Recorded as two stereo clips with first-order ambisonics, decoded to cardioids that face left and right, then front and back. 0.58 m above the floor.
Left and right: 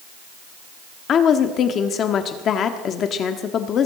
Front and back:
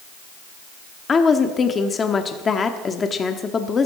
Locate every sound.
1.1 s a woman speaking: 60° left, 1.1 m